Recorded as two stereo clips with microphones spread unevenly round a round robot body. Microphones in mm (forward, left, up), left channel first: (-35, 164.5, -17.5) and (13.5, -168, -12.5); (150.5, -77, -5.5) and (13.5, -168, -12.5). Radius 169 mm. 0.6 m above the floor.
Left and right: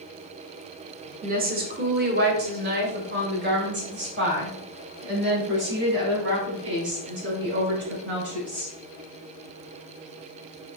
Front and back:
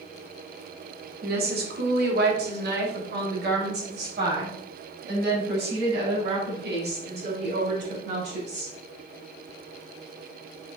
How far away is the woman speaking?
About 1.3 m.